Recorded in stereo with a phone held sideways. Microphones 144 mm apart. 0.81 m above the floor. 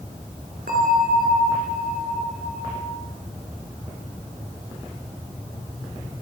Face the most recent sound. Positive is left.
turn(degrees=-80)